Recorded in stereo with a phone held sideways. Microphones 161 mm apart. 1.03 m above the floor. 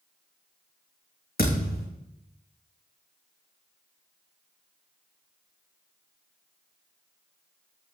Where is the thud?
70° left (ahead or behind), 3 m.